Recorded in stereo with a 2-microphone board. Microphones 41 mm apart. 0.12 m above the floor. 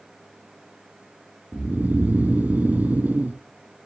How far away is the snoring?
About 0.6 m.